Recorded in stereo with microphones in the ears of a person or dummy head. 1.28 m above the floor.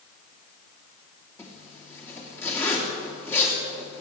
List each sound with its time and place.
1.4 s a zipper: 15° left (ahead or behind), 2.5 m